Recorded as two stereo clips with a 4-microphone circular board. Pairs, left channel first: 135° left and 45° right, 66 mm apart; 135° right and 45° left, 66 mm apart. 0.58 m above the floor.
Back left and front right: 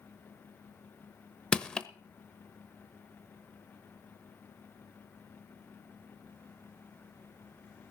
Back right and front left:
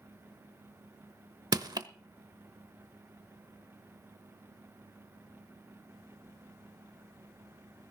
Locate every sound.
1.5 s crushing: 55° left, 0.8 m